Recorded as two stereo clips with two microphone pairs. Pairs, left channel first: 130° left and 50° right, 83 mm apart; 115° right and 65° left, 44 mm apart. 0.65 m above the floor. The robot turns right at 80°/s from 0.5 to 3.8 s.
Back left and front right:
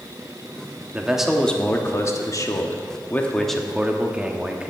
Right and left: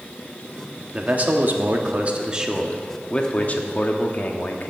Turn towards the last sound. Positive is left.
turn(degrees=-120)